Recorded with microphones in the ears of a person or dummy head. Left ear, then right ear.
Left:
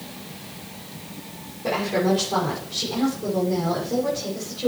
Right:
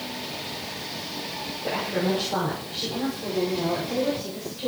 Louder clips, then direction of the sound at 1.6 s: Left 4 dB; 85° left.